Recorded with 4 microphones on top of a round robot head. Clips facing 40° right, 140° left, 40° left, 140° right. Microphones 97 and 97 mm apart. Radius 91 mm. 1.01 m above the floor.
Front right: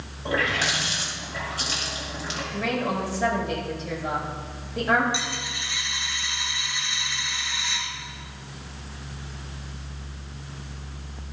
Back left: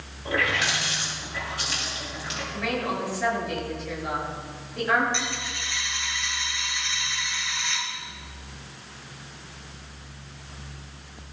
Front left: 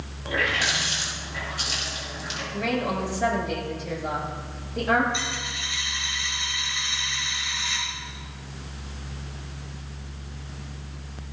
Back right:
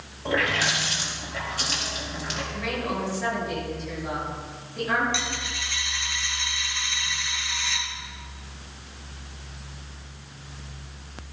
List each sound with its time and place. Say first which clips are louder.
0.2 s a running tap: front right 1 dB, back right 2 dB; 95° right, 5.5 m
2.5 s a woman speaking: front right 2 dB, front left 4 dB; 10° left, 7.5 m
5.1 s a dropped coin: even, even; 120° right, 3.5 m